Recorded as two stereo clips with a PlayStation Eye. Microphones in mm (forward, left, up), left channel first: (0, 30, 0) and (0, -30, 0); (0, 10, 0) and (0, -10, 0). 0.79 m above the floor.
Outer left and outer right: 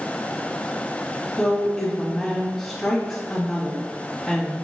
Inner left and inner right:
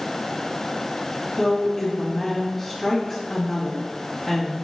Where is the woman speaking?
5° left (ahead or behind), 1.3 m.